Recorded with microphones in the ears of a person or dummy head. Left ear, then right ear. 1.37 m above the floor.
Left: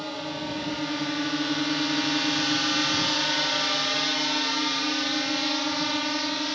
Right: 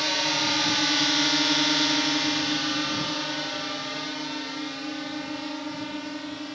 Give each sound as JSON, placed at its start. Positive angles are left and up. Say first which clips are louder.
{"t": 0.0, "sound": "a drone", "louder": "right 8 dB", "side_deg": -60}